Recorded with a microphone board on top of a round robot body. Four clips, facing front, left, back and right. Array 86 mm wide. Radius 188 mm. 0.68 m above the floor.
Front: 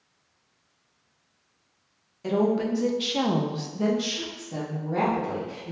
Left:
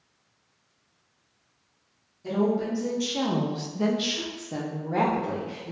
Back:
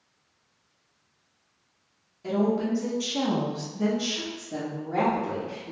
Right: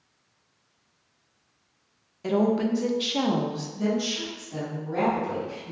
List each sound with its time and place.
2.2 s a woman speaking: 65° right, 0.9 m; by 5.7 s 100° left, 1.4 m